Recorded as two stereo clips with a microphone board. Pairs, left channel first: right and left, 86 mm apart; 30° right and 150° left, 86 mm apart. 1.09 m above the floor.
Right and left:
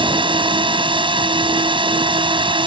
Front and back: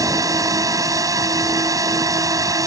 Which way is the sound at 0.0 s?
100° left.